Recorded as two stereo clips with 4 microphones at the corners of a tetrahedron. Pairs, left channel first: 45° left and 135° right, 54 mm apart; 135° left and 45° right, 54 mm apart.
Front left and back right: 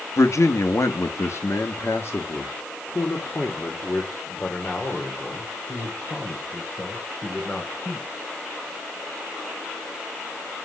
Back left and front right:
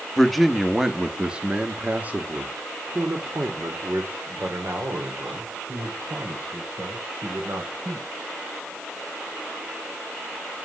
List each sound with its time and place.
0.2 s a man speaking: 50° left, 1.2 m; by 8.1 s 20° right, 4 m